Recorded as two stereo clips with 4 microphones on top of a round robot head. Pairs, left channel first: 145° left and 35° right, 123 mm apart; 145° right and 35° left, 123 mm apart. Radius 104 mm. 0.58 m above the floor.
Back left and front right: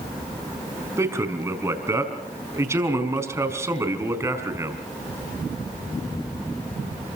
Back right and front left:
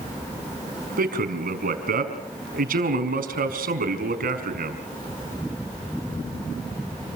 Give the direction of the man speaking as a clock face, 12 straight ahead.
11 o'clock.